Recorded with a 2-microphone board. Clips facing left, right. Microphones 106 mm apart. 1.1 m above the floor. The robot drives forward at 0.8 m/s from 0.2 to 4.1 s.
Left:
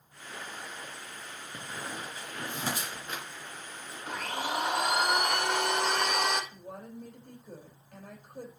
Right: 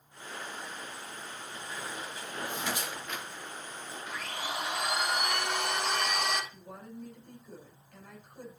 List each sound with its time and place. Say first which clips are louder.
1.5 s a squeak: left 1 dB; 50° left (ahead or behind), 2.5 m; by 3.2 s 35° left (ahead or behind), 3.5 m
4.1 s a blender: left 5 dB; 55° left (ahead or behind), 2 m
6.5 s a woman speaking: left 2 dB; 55° left (ahead or behind), 4.5 m